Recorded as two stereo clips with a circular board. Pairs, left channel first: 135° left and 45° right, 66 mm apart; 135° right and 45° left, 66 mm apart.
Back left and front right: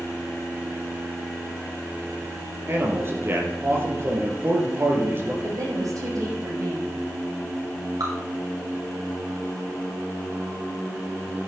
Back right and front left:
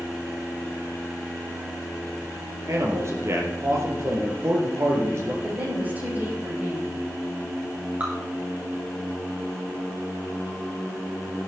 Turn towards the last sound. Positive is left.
turn(degrees=-25)